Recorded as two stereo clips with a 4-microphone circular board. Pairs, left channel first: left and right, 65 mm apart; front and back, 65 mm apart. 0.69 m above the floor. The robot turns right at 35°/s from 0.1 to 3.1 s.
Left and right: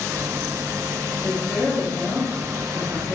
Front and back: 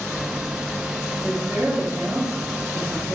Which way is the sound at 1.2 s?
145° left.